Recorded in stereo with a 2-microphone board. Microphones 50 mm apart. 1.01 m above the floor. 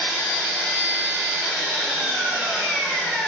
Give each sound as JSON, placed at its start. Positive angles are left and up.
{"t": 0.0, "sound": "an engine running", "side_deg": -10, "distance_m": 1.2}